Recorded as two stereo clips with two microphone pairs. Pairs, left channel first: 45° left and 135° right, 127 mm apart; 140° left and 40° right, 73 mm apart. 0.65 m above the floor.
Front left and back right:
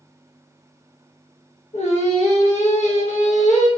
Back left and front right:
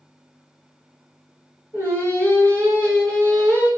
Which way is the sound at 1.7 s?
15° left.